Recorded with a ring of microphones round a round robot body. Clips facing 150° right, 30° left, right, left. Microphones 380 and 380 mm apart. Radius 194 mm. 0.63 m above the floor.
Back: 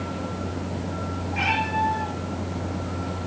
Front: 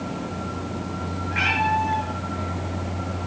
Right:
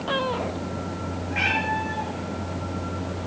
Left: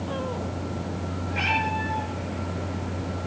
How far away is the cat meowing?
About 7 m.